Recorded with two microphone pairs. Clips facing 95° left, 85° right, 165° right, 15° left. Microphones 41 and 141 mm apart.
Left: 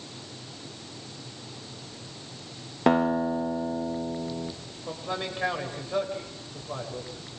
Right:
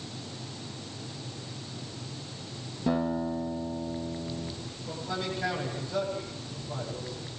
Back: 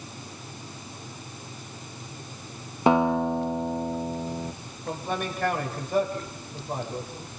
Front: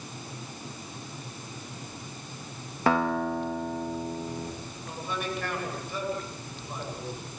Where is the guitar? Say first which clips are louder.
Left 6 dB, back 4 dB; 125° left, 2.5 m.